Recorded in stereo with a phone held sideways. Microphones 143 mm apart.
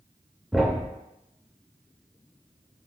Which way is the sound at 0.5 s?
Centre (ahead or behind).